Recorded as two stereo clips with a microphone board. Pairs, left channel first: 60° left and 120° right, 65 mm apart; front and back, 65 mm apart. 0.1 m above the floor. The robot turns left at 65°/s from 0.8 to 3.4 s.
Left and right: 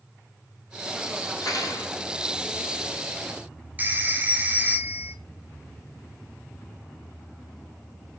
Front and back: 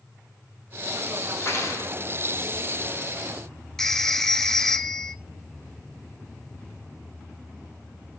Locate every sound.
1.4 s cutlery clinking: 55° left, 2.5 m; by 1.9 s 20° left, 2.5 m
3.8 s a phone ringing: 80° right, 0.9 m